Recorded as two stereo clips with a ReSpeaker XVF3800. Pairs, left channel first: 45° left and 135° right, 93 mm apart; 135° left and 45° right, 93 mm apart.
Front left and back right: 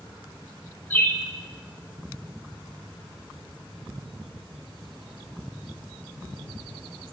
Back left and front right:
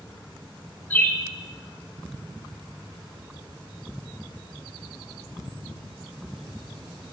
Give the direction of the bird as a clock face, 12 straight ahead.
9 o'clock.